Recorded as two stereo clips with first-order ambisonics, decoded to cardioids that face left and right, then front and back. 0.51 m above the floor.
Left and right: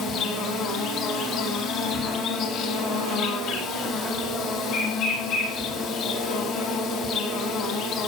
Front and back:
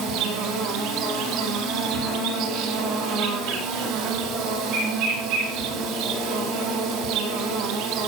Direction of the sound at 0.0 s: 140° left.